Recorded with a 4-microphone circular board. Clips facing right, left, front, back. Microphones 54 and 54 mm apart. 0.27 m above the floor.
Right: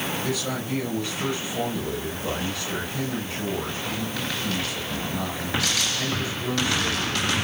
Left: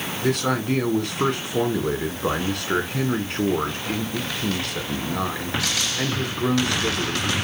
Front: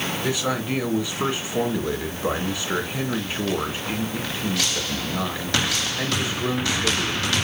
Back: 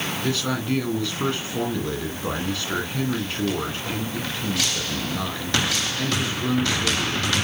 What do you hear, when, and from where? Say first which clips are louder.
0.2 s a man speaking: left 6 dB, even; 75° left, 2.5 m